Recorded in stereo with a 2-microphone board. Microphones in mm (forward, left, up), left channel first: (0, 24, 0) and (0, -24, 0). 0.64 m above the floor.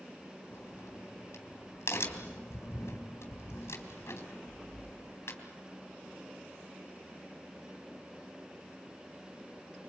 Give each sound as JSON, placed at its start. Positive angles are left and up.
{"t": 0.5, "sound": "a crack", "side_deg": 75, "distance_m": 3.5}